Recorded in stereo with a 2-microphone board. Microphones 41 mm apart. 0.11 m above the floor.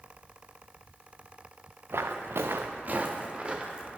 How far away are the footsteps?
About 0.7 m.